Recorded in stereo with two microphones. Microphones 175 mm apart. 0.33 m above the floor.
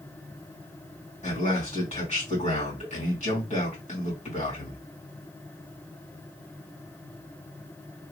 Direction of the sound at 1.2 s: 45° left (ahead or behind).